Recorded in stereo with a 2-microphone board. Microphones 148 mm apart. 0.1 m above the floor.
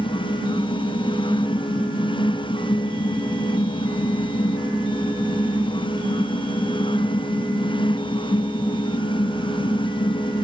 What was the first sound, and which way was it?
Only background noise.